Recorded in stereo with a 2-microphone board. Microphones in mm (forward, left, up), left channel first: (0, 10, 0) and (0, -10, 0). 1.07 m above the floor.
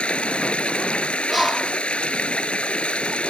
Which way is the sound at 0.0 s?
85° left.